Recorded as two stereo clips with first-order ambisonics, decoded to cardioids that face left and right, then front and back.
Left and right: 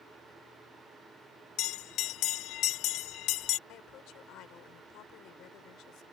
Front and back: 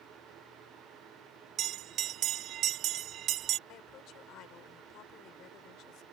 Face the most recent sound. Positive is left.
turn(degrees=45)